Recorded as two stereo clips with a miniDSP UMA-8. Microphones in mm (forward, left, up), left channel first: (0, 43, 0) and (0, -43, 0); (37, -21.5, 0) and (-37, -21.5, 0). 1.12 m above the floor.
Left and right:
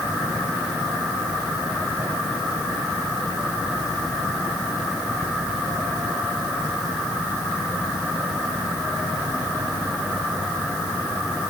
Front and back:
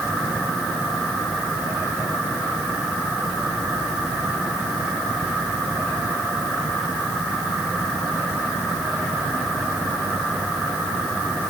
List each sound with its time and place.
Only background noise.